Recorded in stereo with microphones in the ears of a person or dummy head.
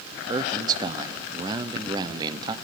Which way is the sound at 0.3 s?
20° right (ahead or behind).